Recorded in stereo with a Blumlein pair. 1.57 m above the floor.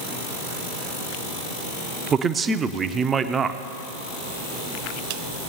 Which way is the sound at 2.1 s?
20° right.